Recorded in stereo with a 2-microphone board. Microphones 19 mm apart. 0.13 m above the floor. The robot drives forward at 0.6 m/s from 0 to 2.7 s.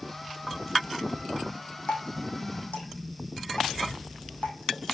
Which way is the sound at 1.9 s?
75° left (ahead or behind).